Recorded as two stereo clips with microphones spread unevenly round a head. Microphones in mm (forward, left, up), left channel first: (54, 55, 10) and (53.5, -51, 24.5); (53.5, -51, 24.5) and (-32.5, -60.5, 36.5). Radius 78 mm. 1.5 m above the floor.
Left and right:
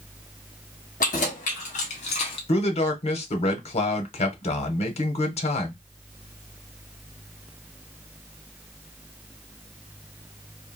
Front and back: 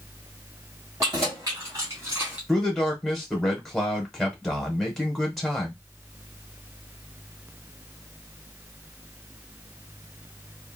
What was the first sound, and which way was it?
Keys jangling, 120° left.